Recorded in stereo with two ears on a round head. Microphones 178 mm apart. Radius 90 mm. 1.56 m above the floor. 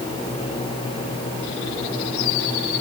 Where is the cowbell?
No cowbell in this recording.